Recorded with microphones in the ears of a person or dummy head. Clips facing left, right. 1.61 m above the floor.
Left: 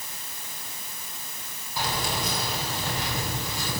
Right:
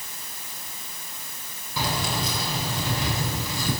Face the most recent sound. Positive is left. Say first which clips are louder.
# right 2 dB
turn(degrees=-65)  # may be behind; listen again after turning